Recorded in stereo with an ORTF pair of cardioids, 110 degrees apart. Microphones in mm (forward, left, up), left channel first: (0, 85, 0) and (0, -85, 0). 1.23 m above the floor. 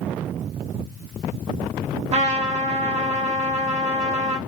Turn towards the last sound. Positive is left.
turn(degrees=-40)